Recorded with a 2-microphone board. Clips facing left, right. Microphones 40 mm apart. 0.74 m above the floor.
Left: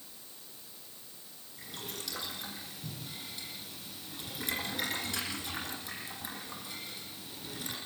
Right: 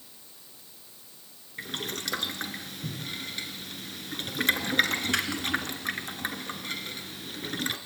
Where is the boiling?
65° right (ahead or behind), 2.5 m.